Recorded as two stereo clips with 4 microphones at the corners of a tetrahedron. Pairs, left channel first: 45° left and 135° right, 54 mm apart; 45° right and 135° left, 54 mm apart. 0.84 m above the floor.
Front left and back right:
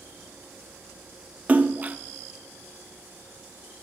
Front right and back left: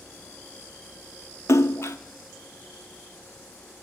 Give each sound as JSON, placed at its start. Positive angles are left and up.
{"t": 1.5, "sound": "a splash", "azimuth_deg": -75, "distance_m": 0.6}